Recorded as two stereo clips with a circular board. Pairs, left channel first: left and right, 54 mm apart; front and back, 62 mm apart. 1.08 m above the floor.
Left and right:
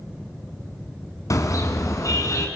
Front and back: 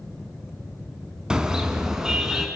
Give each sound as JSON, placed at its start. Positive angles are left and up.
{"t": 1.3, "sound": "a car horn", "azimuth_deg": 105, "distance_m": 4.0}